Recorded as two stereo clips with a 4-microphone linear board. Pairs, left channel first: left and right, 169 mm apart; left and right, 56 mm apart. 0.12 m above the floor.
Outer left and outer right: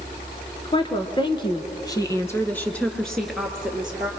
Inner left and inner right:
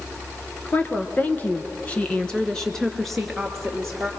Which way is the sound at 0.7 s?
30° left (ahead or behind).